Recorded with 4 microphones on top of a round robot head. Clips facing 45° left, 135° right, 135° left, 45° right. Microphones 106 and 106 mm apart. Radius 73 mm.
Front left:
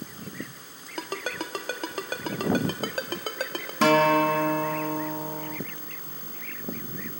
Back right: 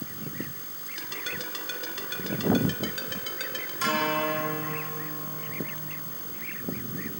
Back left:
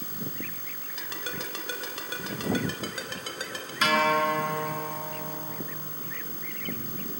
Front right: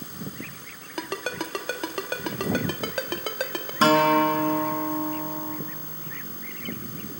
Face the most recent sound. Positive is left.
turn(degrees=15)